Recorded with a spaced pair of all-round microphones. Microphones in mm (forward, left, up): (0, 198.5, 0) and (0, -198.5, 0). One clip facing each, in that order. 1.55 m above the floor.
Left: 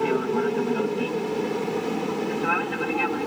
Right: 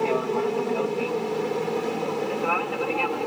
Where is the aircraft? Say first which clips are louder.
Left 1 dB; 25° left (ahead or behind); by 3.3 s 30° left (ahead or behind).